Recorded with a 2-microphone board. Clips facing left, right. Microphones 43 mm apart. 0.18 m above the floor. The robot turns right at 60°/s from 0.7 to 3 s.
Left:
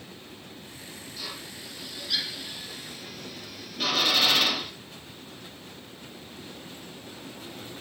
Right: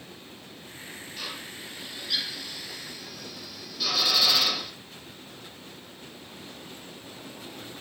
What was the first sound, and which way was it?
A drill, 55° right (ahead or behind).